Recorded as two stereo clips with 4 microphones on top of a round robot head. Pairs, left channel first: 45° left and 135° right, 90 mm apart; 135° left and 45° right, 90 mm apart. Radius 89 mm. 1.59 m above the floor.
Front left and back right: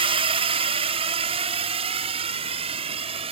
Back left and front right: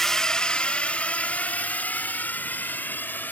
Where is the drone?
135° right; by 3.3 s 150° right.